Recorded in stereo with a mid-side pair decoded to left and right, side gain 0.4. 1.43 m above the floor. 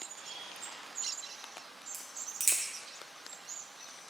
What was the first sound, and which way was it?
A camera shutter, 55° right.